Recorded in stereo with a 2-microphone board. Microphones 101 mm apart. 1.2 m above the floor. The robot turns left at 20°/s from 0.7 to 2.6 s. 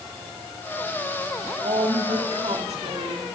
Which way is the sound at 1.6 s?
80° right.